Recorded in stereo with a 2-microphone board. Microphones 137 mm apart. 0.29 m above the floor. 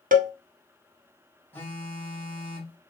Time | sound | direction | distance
0.1 | a cowbell | 80° right | 0.5 m
1.5 | a phone buzzing | 15° left (ahead or behind) | 1.5 m